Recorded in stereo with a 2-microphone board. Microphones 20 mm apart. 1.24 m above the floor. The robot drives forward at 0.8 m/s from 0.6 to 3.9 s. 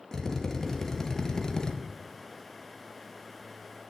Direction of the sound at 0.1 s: 20° left (ahead or behind).